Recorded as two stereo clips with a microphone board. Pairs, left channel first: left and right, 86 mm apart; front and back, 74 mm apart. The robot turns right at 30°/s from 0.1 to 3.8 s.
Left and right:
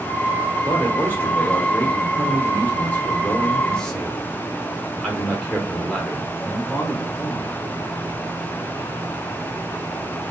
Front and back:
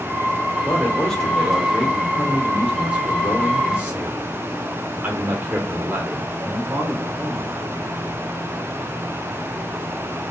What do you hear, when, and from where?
0.6 s a man speaking: 65° left, 0.9 m; by 7.5 s 160° left, 0.9 m